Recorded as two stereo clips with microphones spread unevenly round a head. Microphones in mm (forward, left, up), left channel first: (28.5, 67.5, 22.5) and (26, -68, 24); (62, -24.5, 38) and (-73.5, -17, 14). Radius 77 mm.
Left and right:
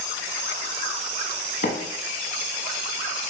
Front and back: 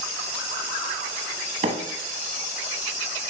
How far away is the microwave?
About 1.2 m.